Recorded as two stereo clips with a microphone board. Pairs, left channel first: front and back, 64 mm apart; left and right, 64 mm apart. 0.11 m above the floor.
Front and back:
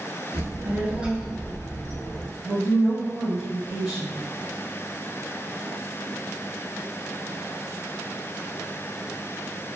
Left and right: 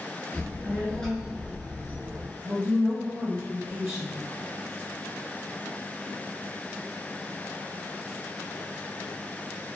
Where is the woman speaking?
120° right, 1.2 m.